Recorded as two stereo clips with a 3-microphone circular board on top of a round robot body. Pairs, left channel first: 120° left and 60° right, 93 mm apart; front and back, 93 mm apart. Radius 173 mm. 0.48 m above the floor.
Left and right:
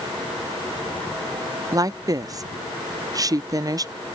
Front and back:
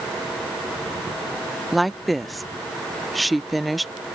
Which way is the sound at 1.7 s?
90° right.